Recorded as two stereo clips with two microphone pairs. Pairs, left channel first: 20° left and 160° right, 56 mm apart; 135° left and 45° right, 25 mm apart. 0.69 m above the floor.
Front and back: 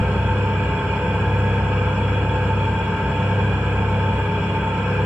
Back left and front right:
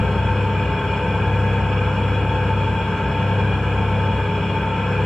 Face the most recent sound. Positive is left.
turn(degrees=145)